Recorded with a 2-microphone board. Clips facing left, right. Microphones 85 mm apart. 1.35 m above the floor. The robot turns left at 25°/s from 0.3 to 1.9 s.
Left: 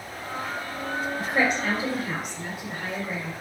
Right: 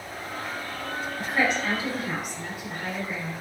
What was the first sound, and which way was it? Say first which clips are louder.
A woman speaking: even; 50° left (ahead or behind).